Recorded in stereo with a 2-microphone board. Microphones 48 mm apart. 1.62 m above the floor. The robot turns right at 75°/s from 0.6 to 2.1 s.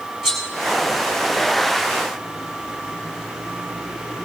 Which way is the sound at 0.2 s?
5° right (ahead or behind).